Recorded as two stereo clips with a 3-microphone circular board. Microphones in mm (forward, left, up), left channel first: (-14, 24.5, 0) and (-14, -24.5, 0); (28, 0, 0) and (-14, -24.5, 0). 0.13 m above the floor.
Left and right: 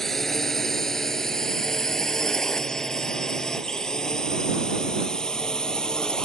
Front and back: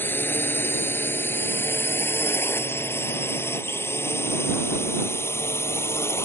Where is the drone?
10° left; by 6.2 s 15° left.